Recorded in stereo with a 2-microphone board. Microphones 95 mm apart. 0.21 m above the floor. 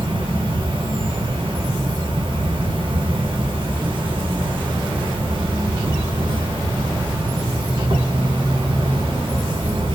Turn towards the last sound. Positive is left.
turn(degrees=-65)  # may be behind; listen again after turning